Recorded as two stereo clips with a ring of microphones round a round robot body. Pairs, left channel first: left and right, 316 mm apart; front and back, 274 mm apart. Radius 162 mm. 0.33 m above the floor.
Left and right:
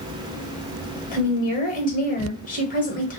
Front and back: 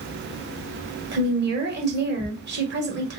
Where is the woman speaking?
145° left, 1.3 m.